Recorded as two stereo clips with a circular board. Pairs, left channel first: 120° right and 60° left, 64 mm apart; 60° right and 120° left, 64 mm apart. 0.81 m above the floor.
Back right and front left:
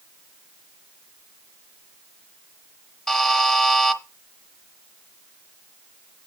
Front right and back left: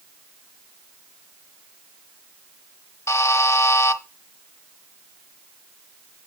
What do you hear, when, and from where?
3.1 s a buzzer: 40° right, 1.1 m